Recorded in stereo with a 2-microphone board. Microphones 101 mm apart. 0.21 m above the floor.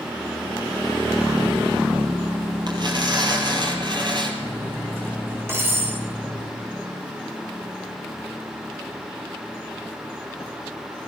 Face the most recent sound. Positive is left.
turn(degrees=-25)  # may be behind; listen again after turning